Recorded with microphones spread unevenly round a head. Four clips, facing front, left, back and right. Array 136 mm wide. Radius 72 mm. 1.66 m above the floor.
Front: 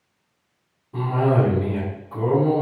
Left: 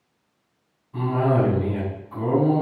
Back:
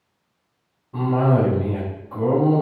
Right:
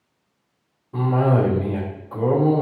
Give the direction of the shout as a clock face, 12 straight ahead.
No shout in this recording.